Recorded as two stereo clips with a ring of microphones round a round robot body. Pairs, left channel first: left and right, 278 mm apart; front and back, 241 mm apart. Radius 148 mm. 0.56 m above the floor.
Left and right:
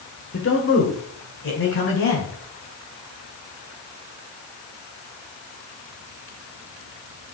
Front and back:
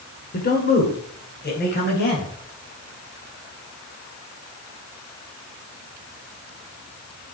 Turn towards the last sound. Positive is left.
turn(degrees=45)